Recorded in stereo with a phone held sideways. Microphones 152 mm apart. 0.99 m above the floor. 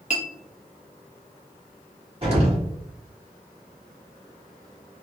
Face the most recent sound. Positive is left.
turn(degrees=-35)  # may be behind; listen again after turning